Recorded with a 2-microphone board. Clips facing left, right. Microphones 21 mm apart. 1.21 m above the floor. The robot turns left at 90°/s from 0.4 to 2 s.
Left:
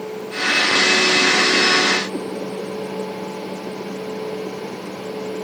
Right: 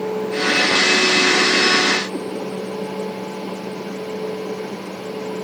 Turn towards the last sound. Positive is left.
turn(degrees=-45)  # may be behind; listen again after turning